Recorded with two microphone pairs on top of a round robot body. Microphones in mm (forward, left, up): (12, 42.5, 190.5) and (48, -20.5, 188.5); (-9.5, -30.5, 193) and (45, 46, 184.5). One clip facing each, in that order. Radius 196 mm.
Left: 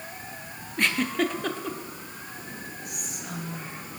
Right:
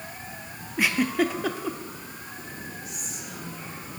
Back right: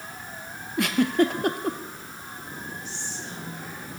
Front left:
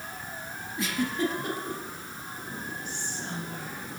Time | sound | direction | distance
0.8 | a giggle | 140° right | 1.0 m
2.9 | whispering | 90° left | 3.5 m